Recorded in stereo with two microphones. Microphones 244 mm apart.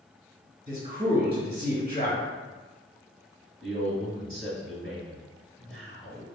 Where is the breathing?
I don't hear breathing.